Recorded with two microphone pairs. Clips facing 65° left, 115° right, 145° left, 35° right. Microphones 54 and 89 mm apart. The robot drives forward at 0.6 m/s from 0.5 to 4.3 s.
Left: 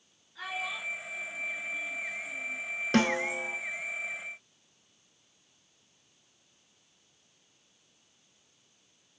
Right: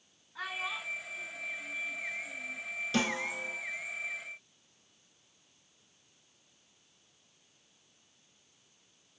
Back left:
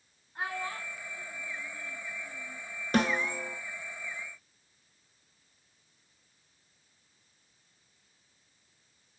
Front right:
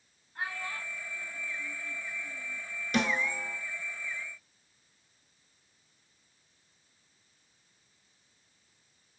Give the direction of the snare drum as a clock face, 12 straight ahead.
9 o'clock.